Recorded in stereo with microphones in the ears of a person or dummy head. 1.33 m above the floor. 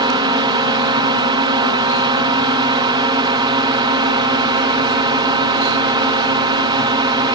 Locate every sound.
0.0 s a drone: 25° right (ahead or behind)